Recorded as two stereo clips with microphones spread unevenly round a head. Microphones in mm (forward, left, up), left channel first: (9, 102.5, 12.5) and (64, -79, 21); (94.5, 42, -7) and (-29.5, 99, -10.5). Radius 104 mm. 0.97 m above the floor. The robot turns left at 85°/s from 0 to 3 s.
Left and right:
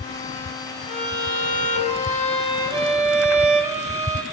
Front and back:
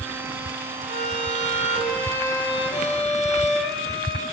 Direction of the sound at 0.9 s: 150° left.